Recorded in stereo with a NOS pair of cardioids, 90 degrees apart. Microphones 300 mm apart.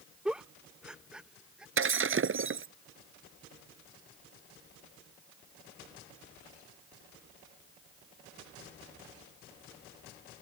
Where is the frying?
No frying in this recording.